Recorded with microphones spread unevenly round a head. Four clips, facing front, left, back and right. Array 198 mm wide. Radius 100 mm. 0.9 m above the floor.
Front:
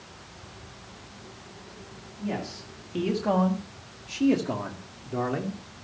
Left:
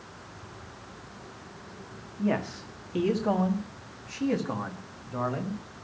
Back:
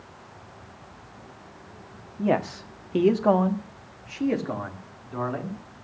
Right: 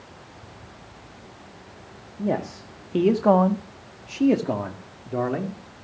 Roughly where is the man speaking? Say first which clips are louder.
Right 2 dB, back 9 dB; behind right.